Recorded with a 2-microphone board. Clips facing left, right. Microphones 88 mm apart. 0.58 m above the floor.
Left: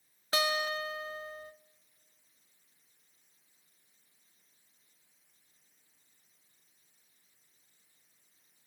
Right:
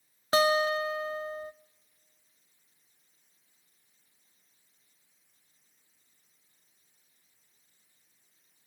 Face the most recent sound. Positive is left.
turn(degrees=-35)  # may be behind; listen again after turning